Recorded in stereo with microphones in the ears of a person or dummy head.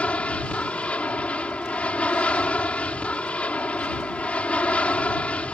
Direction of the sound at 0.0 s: 10° left (ahead or behind).